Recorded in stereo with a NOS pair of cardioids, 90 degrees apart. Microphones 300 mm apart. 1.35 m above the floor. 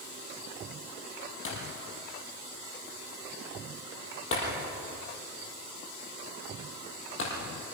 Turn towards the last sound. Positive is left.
turn(degrees=45)